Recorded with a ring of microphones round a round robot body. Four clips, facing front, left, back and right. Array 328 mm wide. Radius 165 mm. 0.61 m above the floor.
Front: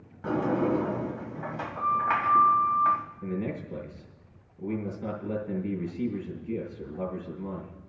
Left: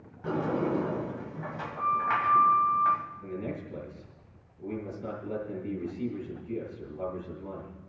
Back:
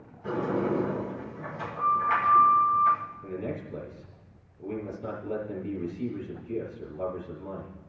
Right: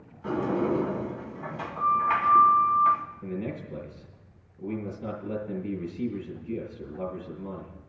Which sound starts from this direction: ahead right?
A man speaking, at 3.2 s.